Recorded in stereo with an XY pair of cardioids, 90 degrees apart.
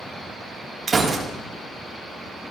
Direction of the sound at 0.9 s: 45° right.